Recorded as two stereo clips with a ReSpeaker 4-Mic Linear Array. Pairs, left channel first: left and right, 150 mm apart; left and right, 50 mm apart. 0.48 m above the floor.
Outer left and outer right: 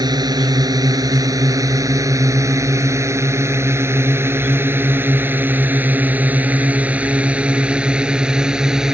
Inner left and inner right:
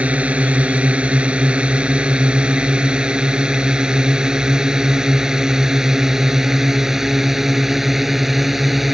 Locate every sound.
0.0 s a drone: 25° right (ahead or behind); by 8.9 s 5° right (ahead or behind)